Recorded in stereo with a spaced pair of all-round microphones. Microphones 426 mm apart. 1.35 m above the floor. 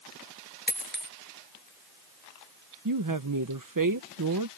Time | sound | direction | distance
0.7 | a dropped coin | 25° left (ahead or behind) | ?
2.9 | a woman speaking | 50° right (ahead or behind) | ?